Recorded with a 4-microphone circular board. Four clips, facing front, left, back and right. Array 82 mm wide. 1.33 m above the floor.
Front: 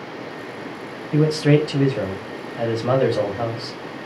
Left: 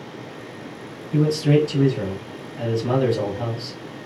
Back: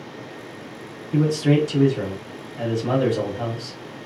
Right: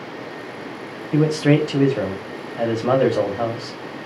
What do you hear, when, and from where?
1.1 s a man speaking: 70° right, 0.8 m